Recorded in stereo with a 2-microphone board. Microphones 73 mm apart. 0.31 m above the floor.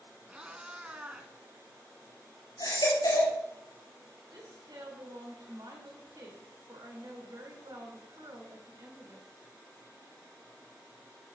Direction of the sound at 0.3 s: 15° right (ahead or behind).